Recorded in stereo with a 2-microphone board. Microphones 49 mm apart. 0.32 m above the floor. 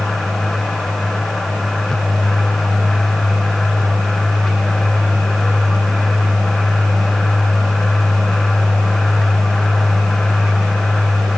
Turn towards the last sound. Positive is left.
No sound to turn to.